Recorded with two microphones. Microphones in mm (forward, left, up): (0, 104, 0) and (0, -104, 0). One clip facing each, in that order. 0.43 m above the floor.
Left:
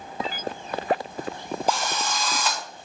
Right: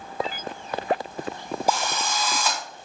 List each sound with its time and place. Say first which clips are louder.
1.7 s a drill: right 1 dB; 10° right (ahead or behind), 1.7 m